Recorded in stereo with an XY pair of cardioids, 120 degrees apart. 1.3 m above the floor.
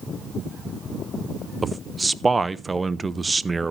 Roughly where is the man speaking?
Ahead.